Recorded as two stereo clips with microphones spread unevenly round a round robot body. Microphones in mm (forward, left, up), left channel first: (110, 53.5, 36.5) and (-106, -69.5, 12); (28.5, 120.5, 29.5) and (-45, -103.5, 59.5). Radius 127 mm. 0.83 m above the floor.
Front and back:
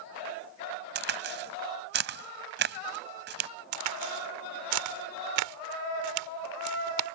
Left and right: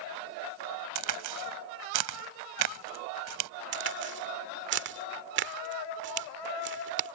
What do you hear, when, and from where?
0.9 s a crack: 100° right
3.7 s a crack: 150° right